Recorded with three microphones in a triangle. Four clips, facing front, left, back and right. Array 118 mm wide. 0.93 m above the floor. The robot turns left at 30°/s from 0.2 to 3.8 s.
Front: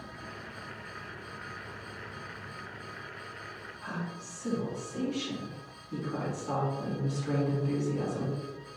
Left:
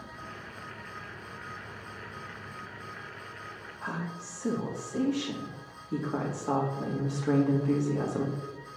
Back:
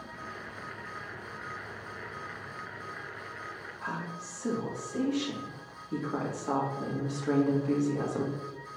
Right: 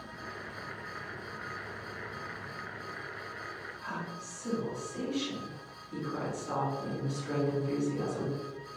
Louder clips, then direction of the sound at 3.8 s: Left 4 dB, back 1 dB; 120° left.